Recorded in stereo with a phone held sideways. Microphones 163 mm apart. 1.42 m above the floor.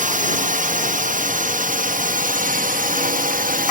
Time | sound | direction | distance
0.0 | a drone | 55° right (ahead or behind) | ?